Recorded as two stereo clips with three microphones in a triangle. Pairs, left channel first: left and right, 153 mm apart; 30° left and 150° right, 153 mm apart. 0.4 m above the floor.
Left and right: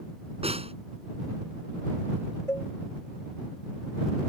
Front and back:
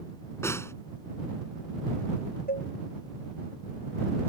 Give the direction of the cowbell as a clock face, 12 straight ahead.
11 o'clock.